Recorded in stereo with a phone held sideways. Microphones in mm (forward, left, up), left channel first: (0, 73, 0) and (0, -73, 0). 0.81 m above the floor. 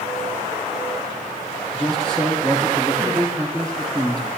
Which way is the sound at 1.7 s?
5° left (ahead or behind).